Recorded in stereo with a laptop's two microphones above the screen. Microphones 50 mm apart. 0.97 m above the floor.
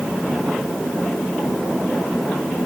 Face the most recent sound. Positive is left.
No sound to turn to.